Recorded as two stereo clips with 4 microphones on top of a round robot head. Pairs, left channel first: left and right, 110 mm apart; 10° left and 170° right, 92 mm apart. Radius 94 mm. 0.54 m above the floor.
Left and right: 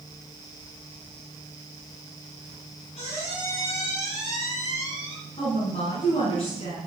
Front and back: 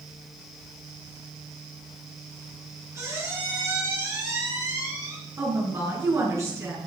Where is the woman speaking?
135° left, 6.5 m.